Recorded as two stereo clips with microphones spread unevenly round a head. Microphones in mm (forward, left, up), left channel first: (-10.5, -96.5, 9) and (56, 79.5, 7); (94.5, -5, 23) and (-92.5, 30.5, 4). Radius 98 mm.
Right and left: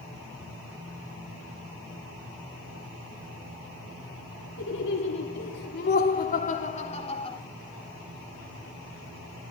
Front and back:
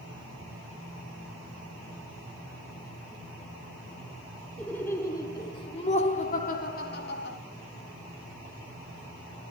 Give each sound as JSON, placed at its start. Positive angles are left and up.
{"t": 4.6, "sound": "laughter", "azimuth_deg": -95, "distance_m": 3.5}